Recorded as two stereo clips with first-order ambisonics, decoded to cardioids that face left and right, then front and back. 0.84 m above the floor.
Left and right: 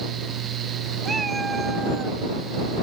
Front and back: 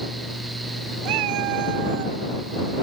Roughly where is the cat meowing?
Behind.